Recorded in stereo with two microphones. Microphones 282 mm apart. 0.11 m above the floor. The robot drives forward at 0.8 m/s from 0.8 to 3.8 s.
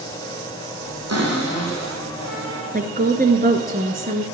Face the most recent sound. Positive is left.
turn(degrees=-30)  # may be behind; listen again after turning